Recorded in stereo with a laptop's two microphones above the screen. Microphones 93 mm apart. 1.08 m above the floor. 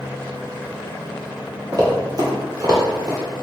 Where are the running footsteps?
45° right (ahead or behind), 1.4 m; by 3.2 s 40° right (ahead or behind), 1.5 m.